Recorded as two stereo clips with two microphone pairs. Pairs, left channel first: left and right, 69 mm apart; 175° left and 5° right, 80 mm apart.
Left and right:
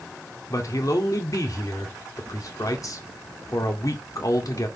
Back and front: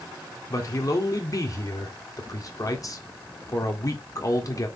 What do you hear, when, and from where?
0.5 s a man speaking: 125° left, 1.9 m